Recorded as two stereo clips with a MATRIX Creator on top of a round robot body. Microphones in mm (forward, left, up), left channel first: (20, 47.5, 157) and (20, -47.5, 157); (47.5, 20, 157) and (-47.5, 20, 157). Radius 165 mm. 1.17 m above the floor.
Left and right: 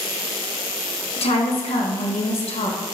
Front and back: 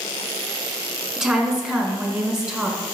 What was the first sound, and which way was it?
A woman speaking, 95° left.